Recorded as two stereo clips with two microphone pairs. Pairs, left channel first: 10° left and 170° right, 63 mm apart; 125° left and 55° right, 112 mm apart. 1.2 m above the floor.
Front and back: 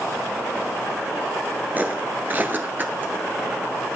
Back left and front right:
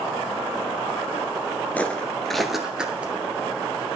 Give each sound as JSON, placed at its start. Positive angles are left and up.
{"t": 1.8, "sound": "footsteps", "azimuth_deg": -175, "distance_m": 1.3}